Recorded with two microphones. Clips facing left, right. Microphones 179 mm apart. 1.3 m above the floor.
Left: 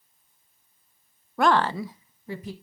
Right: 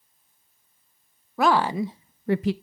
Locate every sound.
1.4 s a woman speaking: centre (ahead or behind), 0.9 m; by 2.5 s 85° right, 0.5 m